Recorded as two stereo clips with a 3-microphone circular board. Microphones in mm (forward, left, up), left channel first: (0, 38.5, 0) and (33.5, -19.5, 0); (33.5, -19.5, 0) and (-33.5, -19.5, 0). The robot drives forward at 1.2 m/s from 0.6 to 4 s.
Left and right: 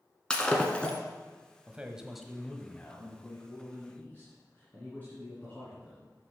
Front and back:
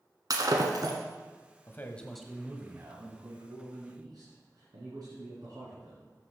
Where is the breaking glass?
165° right, 1.3 m; by 1.0 s 170° right, 1.8 m.